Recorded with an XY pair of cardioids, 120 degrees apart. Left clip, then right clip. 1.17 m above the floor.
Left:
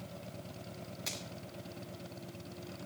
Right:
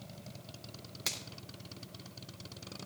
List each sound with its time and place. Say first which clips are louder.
1.1 s a finger snap: right 4 dB; 45° right, 3 m